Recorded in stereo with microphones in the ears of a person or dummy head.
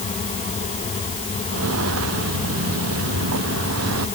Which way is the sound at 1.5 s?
80° right.